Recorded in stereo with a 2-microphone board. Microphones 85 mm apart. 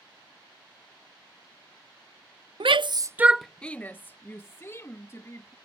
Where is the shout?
85° right; by 5.5 s 35° left (ahead or behind).